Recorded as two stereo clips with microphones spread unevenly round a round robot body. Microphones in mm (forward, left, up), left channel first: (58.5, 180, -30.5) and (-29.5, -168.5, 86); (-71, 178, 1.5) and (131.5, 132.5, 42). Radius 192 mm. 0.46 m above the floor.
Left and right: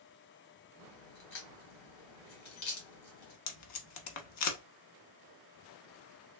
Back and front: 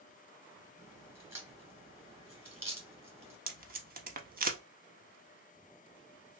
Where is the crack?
55° left, 2 m.